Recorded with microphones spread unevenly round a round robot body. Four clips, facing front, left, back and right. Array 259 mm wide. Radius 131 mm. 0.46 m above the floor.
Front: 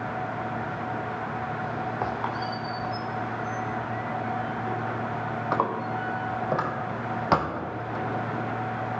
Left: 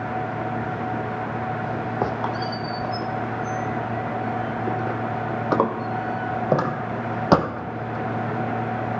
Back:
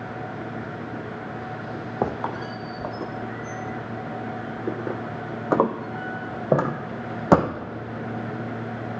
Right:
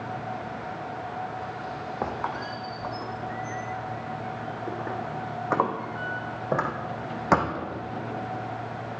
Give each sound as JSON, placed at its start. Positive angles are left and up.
{"t": 2.0, "sound": "a squeak", "azimuth_deg": 150, "distance_m": 1.0}